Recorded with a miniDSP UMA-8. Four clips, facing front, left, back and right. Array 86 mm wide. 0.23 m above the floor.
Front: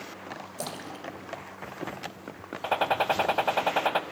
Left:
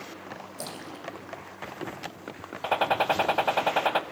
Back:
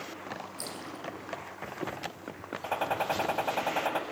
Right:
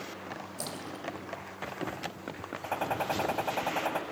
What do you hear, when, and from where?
0.6 s a splash: 5° left, 3.5 m
2.6 s a gunshot: 55° left, 0.8 m